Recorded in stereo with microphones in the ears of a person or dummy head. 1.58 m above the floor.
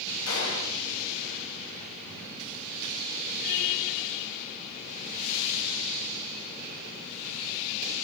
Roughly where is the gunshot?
Left.